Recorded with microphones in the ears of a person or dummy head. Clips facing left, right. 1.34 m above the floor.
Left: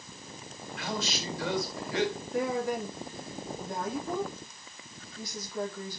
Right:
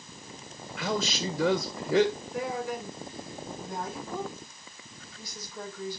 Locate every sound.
0.8 s a woman speaking: 70° right (ahead or behind), 1.9 m
2.3 s a woman speaking: 40° left (ahead or behind), 3.5 m